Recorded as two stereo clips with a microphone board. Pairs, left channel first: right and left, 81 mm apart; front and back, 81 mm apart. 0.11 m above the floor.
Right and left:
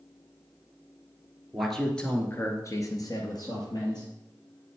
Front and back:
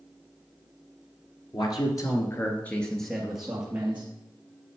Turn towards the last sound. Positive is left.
turn(degrees=-110)